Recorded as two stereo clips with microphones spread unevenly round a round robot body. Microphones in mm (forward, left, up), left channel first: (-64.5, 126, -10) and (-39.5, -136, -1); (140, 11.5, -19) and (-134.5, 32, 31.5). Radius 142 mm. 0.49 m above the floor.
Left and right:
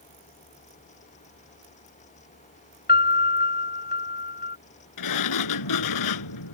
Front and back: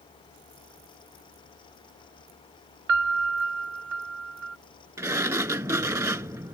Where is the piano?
145° left.